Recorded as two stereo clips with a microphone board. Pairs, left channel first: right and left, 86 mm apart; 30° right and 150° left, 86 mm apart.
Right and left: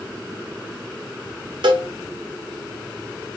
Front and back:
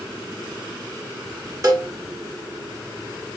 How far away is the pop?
I don't hear a pop.